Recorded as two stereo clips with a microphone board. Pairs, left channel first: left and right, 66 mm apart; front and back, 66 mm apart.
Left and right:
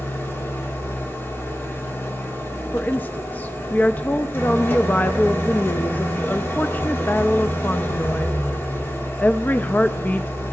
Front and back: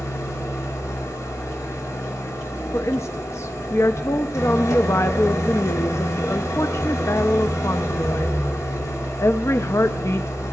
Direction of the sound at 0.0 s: 35° left.